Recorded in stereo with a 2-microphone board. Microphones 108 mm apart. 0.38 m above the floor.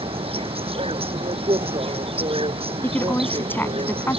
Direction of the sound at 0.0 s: 60° right (ahead or behind).